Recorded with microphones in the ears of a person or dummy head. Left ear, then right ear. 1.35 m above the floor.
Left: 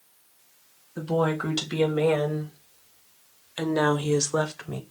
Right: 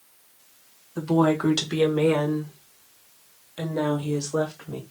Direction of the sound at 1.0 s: 10° right (ahead or behind).